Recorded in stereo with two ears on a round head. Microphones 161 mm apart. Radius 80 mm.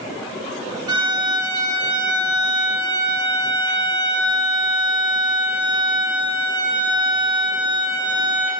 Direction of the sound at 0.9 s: 20° right (ahead or behind).